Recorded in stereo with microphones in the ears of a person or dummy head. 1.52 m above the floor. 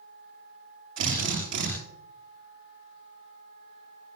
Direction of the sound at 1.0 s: 70° right (ahead or behind).